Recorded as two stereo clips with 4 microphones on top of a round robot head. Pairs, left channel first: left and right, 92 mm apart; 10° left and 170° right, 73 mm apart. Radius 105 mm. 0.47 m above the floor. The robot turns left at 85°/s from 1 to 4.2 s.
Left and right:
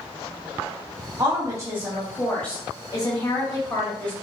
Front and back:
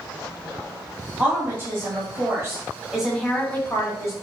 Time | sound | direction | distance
1.2 | a woman speaking | 95° right | 1.4 m